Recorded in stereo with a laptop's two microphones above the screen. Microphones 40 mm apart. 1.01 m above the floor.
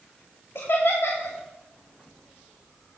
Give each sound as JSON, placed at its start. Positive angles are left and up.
{"t": 0.6, "sound": "laughter", "side_deg": 65, "distance_m": 1.0}